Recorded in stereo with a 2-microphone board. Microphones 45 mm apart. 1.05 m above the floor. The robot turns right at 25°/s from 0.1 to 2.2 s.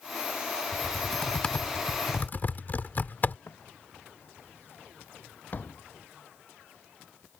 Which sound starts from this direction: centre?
Typing on a keyboard, at 0.7 s.